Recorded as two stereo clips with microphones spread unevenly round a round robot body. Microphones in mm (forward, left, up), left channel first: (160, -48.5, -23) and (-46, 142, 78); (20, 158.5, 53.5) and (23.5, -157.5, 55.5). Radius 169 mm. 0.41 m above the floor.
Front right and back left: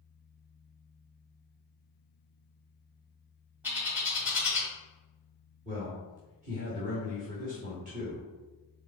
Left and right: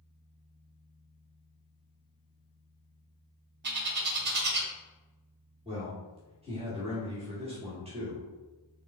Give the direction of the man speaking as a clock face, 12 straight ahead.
5 o'clock.